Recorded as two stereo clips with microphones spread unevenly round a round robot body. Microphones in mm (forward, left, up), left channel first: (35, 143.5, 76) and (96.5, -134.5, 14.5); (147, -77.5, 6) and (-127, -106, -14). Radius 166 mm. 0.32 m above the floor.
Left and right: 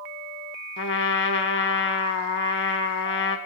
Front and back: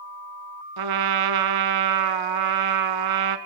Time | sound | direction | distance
0.8 | a trumpet | 160° left | 0.5 m